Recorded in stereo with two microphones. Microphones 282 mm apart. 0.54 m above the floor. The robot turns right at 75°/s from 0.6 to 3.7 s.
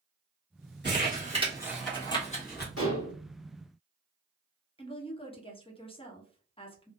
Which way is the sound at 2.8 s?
60° left (ahead or behind).